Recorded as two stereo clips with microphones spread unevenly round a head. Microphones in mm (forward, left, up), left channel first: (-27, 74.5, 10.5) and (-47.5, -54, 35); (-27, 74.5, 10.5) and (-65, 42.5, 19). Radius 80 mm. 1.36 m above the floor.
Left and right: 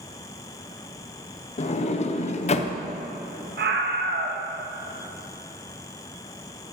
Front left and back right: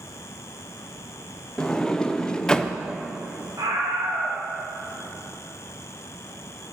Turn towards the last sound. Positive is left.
turn(degrees=-85)